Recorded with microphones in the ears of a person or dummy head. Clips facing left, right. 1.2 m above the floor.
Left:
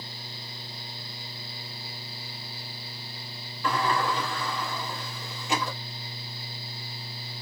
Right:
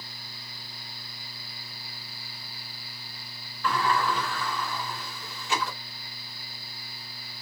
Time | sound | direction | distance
3.6 | a sliding door | 15° left (ahead or behind) | 1.9 m